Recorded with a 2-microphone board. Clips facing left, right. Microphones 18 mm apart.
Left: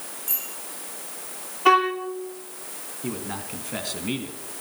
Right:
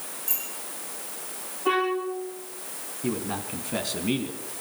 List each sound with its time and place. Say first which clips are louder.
0.3 s a bicycle bell: left 1 dB; 10° left (ahead or behind), 9 m
1.6 s a violin: left 6 dB; 85° left, 6.5 m
3.0 s a man speaking: right 3 dB; centre (ahead or behind), 2 m